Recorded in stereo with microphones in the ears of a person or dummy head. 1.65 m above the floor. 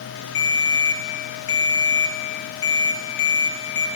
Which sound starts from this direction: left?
A ringtone, at 0.3 s.